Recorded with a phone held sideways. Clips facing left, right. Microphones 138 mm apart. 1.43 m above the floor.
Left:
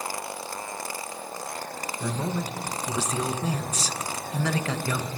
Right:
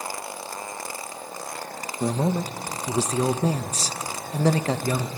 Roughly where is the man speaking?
Right.